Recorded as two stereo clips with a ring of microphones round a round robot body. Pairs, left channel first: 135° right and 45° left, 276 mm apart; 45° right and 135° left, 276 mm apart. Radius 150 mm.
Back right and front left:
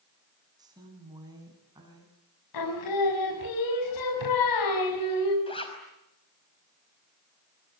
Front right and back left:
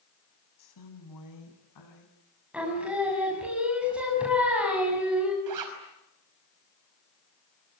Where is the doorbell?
I don't hear a doorbell.